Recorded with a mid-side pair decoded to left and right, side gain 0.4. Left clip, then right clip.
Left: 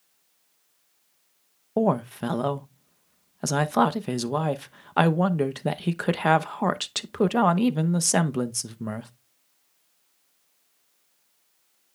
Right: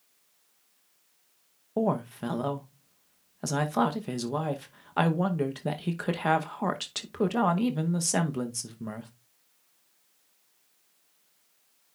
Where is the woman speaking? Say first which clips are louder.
Left 5 dB; 45° left, 0.9 m.